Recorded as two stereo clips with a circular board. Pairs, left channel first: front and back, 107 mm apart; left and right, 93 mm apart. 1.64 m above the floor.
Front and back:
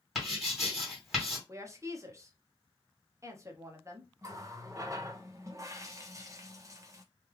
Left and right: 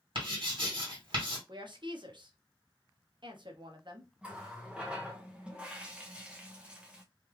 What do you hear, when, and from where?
0.1 s writing: 90° right, 2.0 m
1.5 s a woman speaking: 120° right, 0.8 m
4.2 s a running tap: 160° right, 0.6 m